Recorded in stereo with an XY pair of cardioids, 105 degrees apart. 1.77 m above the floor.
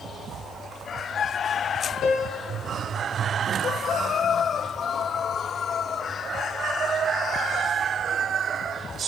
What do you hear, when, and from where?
2.0 s a piano: 70° left, 1.4 m